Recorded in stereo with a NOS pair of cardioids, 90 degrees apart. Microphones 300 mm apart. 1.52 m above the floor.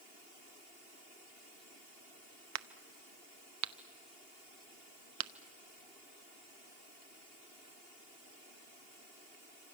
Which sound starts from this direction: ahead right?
A crack, at 2.5 s.